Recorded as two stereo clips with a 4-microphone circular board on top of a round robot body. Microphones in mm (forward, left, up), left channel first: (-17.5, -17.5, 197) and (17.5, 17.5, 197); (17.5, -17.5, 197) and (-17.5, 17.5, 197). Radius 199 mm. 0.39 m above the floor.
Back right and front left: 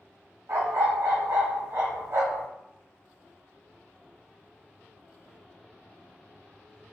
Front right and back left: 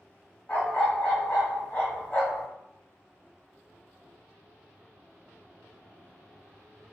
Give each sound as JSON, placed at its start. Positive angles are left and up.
{"t": 0.5, "sound": "a dog barking", "azimuth_deg": 15, "distance_m": 1.2}